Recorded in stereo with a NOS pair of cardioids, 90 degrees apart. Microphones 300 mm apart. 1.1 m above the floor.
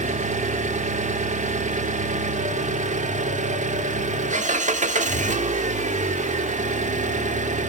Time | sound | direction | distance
0.0 | an engine running | 25° right | 1.5 m